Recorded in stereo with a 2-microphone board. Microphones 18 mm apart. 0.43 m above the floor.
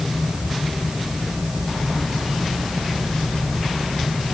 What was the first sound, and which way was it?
Only background noise.